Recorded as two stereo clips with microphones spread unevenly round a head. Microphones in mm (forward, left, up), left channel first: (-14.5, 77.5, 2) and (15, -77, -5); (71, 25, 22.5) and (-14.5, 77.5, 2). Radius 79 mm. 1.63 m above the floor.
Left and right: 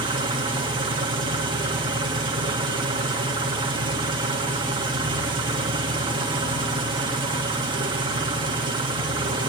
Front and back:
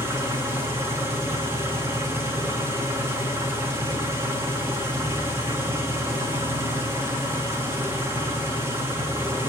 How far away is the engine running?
About 1.3 m.